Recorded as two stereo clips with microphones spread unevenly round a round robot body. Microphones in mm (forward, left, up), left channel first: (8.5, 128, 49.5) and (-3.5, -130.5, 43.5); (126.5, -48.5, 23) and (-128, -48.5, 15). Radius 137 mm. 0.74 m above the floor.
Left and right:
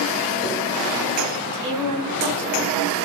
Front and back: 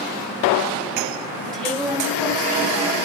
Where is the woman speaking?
90° right, 3.5 m.